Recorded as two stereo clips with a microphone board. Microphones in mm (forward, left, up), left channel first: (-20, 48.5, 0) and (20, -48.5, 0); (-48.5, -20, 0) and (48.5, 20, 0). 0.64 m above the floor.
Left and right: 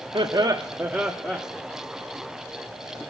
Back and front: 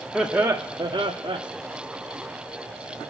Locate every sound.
0.1 s laughter: 70° right, 1.2 m; by 1.4 s 35° left, 1.5 m